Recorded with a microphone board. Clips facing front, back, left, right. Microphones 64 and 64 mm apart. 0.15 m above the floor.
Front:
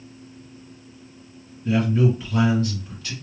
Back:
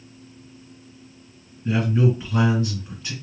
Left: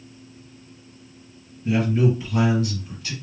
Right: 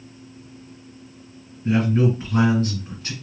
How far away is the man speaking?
About 2 m.